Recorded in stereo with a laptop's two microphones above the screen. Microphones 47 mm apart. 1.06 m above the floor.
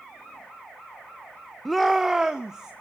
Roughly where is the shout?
Centre.